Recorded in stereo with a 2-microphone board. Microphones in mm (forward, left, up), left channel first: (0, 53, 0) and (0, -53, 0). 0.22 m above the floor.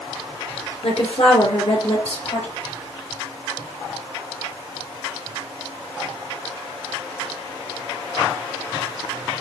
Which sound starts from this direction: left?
A woman speaking, at 0.8 s.